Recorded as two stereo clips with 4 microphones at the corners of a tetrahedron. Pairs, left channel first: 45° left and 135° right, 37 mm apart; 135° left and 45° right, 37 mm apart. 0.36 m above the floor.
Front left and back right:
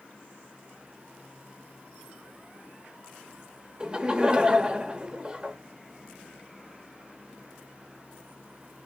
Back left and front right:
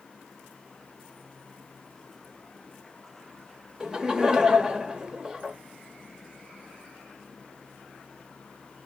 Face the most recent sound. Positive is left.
turn(degrees=-95)